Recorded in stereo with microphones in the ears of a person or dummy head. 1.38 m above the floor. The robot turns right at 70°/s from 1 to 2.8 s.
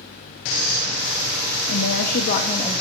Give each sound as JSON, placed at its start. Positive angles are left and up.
{"t": 1.7, "sound": "a woman speaking", "azimuth_deg": 90, "distance_m": 1.7}